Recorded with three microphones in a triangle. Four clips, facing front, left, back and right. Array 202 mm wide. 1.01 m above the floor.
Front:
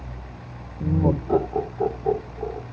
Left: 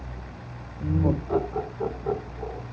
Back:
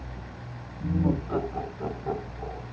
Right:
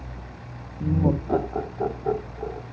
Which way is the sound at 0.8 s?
20° right.